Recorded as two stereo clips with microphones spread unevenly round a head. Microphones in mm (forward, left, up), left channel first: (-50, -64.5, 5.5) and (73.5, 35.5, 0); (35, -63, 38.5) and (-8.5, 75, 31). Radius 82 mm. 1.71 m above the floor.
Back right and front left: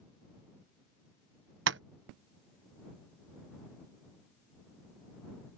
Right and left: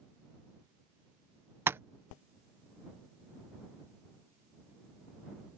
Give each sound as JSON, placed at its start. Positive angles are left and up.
{"t": 1.7, "sound": "tapping", "azimuth_deg": 30}